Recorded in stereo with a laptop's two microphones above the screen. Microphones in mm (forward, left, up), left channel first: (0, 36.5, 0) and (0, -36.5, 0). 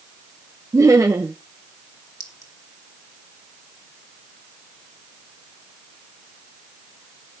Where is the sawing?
I don't hear sawing.